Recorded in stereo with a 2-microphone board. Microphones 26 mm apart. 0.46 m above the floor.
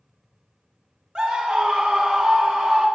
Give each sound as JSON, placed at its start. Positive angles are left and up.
{"t": 1.1, "sound": "a scream", "side_deg": -50, "distance_m": 1.1}